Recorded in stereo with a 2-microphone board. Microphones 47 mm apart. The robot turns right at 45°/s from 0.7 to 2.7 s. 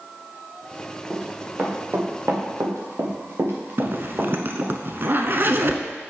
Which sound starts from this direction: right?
A zipper, at 3.8 s.